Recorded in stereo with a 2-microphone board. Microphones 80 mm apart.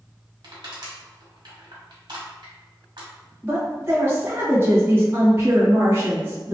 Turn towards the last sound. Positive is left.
turn(degrees=-30)  # may be behind; listen again after turning